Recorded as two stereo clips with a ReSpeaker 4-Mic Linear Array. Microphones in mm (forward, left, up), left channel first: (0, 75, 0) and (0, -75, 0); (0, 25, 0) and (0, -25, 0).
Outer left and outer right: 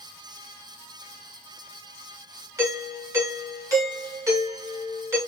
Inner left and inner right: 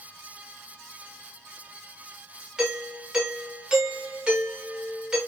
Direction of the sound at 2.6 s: 20° right (ahead or behind).